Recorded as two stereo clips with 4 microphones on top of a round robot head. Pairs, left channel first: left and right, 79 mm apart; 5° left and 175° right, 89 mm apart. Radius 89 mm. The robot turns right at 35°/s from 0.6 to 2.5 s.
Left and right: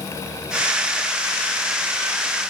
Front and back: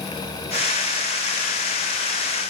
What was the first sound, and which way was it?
Only background noise.